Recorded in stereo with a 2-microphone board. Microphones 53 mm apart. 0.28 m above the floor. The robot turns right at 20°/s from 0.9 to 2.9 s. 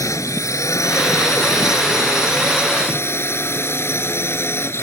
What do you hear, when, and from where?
0.0 s a drone: 85° left; by 4.8 s 125° left